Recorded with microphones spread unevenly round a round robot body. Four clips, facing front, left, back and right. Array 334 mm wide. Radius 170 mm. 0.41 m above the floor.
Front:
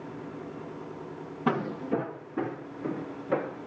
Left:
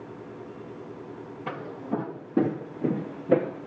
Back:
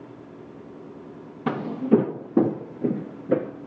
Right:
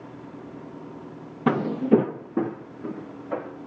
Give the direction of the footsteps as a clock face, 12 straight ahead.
3 o'clock.